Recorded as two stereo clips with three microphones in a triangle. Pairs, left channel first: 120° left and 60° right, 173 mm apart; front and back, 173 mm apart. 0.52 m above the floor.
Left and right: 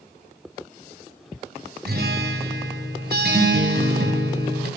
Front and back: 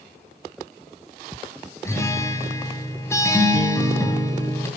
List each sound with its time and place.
1.9 s a guitar: 75° right, 3 m